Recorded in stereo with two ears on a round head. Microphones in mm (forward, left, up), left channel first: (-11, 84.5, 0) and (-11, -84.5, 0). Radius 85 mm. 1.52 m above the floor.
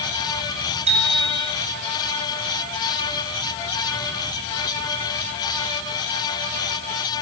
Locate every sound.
0.9 s a bicycle bell: 35° right (ahead or behind), 6.5 m